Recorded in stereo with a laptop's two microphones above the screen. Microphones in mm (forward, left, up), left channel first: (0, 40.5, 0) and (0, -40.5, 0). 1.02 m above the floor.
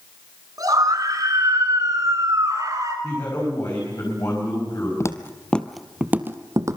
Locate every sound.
0.6 s a scream: 50° right (ahead or behind), 8.5 m; by 2.9 s 45° right (ahead or behind), 10.5 m
3.0 s a man speaking: 45° left (ahead or behind), 5.5 m
5.0 s footsteps: 40° left (ahead or behind), 1.3 m; by 6.8 s 45° right (ahead or behind), 1.5 m